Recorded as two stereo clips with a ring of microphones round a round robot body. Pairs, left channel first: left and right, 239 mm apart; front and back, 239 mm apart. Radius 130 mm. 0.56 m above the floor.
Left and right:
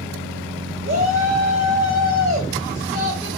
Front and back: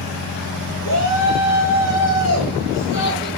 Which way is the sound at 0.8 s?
30° right.